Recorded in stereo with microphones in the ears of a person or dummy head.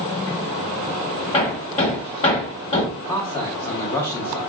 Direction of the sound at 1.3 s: 35° left (ahead or behind).